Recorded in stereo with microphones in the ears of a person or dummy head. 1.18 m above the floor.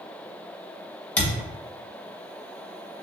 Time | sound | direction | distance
1.2 | a thud | 10° left (ahead or behind) | 2 m